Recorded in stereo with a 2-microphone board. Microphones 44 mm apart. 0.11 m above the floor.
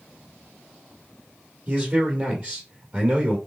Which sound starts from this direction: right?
A man speaking, at 1.7 s.